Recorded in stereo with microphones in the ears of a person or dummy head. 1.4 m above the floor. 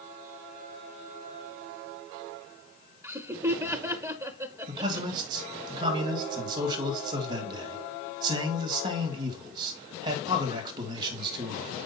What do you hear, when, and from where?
3.0 s laughter: 10° right (ahead or behind), 0.5 m
4.7 s a man speaking: 30° right (ahead or behind), 2 m